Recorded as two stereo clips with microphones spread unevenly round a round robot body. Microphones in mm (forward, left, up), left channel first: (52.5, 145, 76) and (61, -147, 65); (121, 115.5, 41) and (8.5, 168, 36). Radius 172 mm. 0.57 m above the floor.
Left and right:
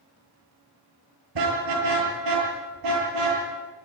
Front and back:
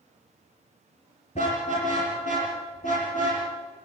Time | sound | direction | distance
1.4 | a car horn | 95° right | 6 m